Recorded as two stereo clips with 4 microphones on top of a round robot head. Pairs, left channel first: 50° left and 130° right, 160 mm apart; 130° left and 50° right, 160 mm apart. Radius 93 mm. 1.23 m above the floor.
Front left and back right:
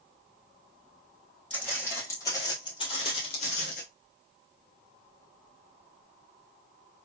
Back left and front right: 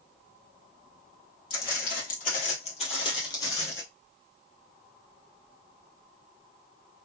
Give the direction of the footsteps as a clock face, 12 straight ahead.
8 o'clock.